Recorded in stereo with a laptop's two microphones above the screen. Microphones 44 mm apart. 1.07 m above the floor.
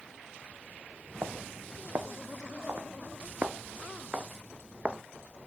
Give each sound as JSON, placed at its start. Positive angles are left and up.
{"t": 1.2, "sound": "footsteps", "side_deg": -60}